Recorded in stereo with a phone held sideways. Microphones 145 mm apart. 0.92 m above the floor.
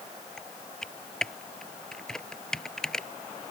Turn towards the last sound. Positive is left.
turn(degrees=5)  # may be behind; listen again after turning